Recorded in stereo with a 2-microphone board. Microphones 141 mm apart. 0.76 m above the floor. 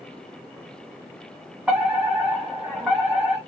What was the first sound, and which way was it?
A fire alarm, 5° right (ahead or behind).